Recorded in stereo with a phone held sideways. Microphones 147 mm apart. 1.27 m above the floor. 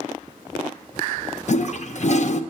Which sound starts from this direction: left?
A toilet flushing, at 1.5 s.